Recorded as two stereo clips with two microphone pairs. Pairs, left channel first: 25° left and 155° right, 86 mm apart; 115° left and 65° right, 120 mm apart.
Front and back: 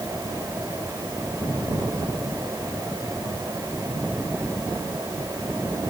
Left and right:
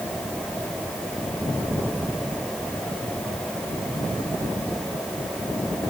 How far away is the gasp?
No gasp in this recording.